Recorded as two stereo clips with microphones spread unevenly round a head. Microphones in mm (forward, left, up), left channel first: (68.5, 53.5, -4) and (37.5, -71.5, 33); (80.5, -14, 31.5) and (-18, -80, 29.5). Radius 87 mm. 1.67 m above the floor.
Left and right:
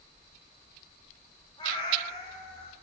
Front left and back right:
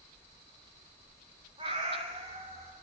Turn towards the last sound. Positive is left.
turn(degrees=140)